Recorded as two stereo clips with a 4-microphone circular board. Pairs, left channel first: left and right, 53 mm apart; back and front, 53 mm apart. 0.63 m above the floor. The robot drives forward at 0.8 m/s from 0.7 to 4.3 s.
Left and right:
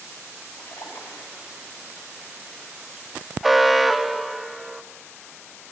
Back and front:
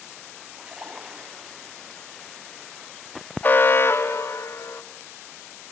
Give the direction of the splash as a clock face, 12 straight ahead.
10 o'clock.